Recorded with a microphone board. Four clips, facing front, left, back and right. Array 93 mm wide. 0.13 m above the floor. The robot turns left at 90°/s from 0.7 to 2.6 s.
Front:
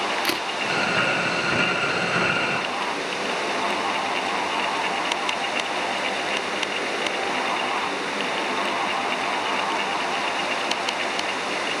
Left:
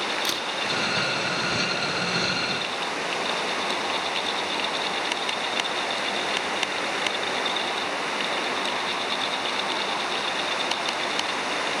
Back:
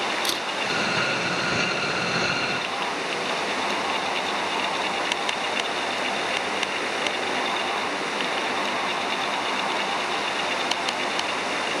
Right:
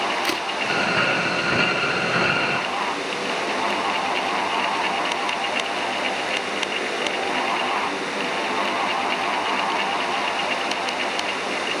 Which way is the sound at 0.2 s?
40° right.